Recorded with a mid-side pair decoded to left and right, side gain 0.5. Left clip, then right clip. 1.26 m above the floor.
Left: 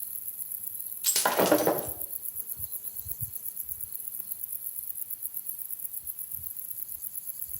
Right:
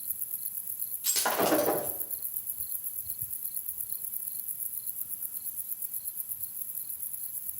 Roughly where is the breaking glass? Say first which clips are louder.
Left 3 dB; ahead left.